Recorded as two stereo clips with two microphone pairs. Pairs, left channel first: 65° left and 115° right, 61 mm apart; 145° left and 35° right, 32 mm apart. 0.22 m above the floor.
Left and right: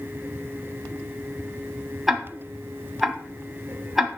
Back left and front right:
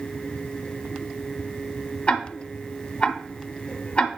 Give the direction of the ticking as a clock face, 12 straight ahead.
6 o'clock.